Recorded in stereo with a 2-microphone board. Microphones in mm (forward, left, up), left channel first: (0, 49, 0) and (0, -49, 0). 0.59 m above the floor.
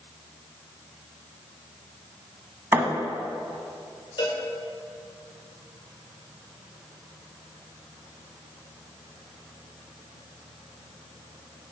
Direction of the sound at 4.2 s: 60° left (ahead or behind).